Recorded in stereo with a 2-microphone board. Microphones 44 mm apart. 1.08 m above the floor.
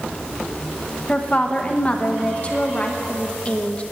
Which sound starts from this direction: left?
A woman speaking, at 1.1 s.